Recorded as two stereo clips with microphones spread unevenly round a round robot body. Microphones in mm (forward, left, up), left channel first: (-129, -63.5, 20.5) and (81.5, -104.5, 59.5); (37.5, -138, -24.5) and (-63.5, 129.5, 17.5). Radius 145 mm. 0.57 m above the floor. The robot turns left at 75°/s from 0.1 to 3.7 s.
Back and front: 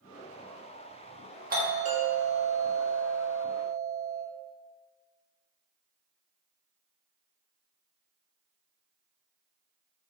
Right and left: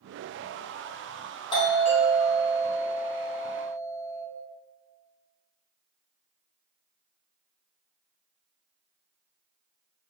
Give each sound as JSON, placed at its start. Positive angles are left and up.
{"t": 1.5, "sound": "a doorbell", "azimuth_deg": -30, "distance_m": 1.2}